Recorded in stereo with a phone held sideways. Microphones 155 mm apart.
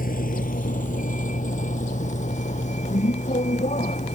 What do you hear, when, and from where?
0.0 s a vehicle: 65° left (ahead or behind); by 4.2 s 50° left (ahead or behind)